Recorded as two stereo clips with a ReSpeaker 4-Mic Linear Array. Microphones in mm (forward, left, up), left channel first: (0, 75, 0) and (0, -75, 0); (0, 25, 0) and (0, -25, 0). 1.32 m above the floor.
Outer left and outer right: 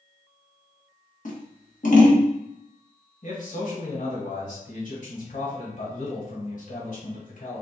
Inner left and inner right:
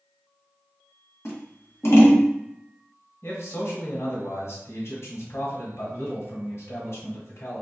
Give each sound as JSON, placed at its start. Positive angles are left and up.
{"t": 1.2, "sound": "scissors", "side_deg": 60, "distance_m": 1.0}
{"t": 3.2, "sound": "a man speaking", "side_deg": 65, "distance_m": 1.4}